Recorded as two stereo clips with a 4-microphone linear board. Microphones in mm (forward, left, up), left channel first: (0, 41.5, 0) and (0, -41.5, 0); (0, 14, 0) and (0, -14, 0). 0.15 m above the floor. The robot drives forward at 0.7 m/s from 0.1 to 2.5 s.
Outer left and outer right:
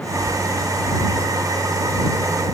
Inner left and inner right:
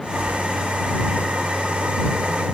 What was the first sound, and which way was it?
Only background noise.